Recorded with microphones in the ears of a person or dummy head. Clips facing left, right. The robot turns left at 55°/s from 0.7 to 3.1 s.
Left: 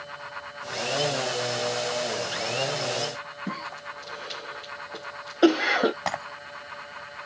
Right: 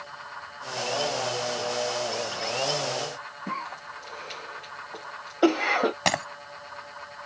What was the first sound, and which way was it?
A cough, 15° left (ahead or behind).